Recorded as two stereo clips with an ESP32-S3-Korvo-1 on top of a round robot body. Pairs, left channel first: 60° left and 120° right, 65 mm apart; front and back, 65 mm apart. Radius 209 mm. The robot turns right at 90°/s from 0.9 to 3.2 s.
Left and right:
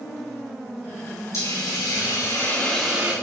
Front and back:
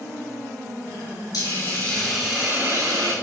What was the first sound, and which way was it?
A hiss, 25° left.